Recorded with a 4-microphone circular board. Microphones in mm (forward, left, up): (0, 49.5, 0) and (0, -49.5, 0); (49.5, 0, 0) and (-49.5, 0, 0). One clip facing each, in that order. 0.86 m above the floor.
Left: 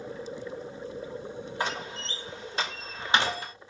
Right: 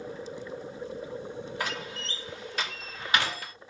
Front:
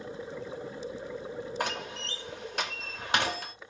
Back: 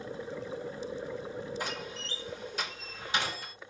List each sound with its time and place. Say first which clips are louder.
1.6 s a door slam: left 5 dB, front 4 dB; 25° left, 0.8 m